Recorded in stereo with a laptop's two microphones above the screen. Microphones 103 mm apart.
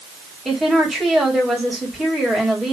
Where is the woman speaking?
Centre (ahead or behind), 2.5 m.